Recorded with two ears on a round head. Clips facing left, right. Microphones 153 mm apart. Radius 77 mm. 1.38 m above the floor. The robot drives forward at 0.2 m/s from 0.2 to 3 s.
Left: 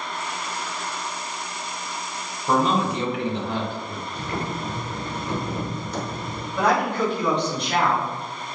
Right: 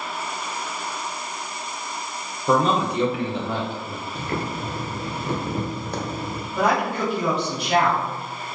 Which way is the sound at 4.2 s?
45° right (ahead or behind).